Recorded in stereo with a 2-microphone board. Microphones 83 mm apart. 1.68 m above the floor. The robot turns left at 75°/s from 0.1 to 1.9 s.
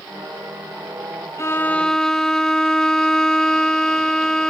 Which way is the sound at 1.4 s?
50° left.